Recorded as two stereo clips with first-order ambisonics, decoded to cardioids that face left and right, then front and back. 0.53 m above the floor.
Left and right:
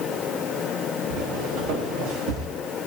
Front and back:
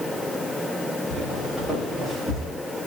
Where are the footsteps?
80° right, 9 m; by 2.5 s 85° right, 9 m.